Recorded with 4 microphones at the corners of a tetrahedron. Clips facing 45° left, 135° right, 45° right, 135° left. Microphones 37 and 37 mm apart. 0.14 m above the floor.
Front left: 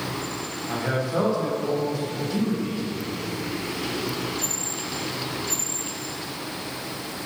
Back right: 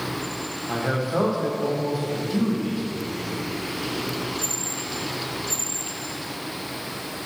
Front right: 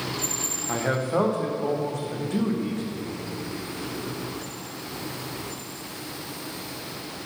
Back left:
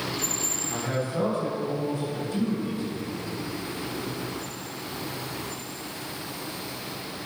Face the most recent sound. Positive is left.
turn(degrees=-60)